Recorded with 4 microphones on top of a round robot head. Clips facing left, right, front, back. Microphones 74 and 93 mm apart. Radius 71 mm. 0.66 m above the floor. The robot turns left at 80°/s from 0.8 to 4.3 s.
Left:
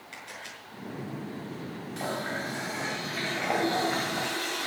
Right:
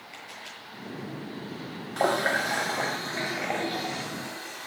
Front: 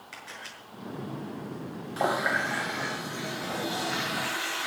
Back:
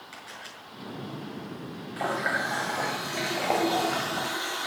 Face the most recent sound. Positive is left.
turn(degrees=110)